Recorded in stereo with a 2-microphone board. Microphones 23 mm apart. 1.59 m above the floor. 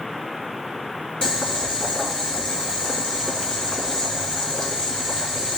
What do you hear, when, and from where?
1.2 s boiling: 55° left (ahead or behind), 3.5 m